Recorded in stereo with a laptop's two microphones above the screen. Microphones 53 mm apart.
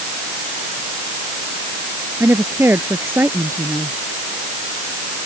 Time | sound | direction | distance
2.2 | a woman speaking | 45° right (ahead or behind) | ?